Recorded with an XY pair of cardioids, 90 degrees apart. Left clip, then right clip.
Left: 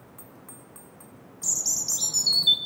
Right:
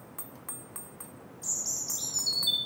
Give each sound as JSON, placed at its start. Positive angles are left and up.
{"t": 1.4, "sound": "a bird", "azimuth_deg": 65, "distance_m": 0.6}